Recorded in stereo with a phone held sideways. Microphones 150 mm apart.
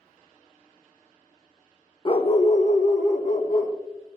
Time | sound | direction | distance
2.0 | a dog barking | 35° left (ahead or behind) | 0.6 m